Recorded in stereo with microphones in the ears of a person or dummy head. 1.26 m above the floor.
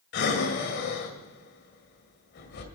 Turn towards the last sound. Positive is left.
turn(degrees=55)  # may be behind; listen again after turning